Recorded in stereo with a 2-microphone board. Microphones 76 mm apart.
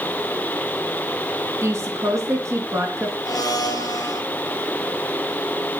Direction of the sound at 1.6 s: 40° right (ahead or behind).